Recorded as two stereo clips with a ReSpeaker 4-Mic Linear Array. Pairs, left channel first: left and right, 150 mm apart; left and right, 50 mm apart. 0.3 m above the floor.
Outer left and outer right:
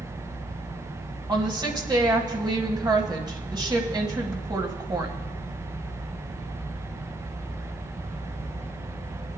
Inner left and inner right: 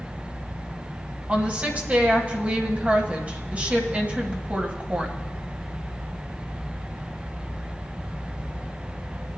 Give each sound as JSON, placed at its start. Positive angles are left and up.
{"t": 1.3, "sound": "a woman speaking", "side_deg": -30, "distance_m": 1.6}